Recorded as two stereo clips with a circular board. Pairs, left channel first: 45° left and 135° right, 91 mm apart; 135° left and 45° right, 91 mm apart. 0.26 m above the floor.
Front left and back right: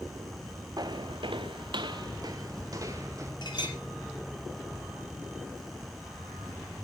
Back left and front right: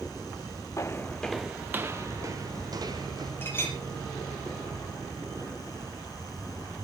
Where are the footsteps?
175° right, 0.9 m; by 3.3 s 80° right, 2.5 m.